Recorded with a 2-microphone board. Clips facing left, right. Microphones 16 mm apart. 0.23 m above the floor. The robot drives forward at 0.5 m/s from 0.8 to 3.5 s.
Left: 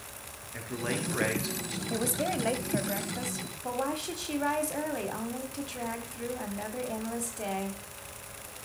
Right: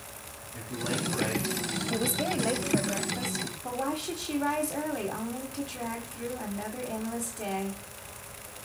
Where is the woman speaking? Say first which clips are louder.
Even; 10° left (ahead or behind), 1.1 m.